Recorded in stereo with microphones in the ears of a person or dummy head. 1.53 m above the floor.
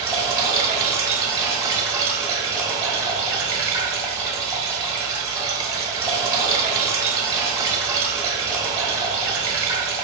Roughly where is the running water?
Centre.